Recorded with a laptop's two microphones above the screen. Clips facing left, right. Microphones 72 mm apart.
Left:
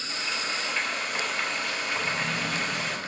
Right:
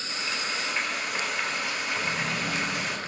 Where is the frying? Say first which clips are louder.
Even; 5° right (ahead or behind), 4 m.